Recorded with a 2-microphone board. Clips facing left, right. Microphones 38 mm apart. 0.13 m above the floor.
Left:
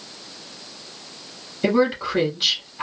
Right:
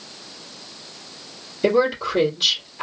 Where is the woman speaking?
10° left (ahead or behind), 2 m.